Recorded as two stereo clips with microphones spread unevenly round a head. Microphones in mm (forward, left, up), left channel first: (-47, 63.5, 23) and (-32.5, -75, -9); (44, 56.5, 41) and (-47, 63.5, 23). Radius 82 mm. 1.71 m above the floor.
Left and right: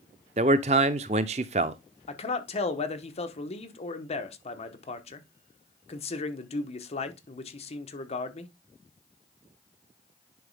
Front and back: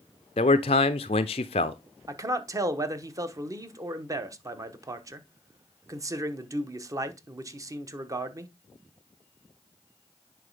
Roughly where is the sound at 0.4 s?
Ahead right.